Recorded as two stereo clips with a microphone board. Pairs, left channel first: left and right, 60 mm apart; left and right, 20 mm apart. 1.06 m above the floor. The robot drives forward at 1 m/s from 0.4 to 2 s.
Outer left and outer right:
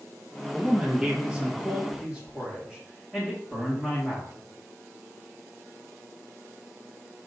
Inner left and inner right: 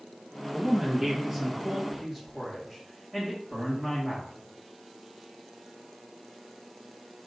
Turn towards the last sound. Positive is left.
turn(degrees=0)  # may be behind; listen again after turning